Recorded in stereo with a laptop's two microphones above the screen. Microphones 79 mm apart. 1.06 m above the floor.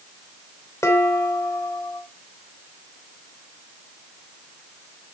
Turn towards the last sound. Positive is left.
turn(degrees=40)  # may be behind; listen again after turning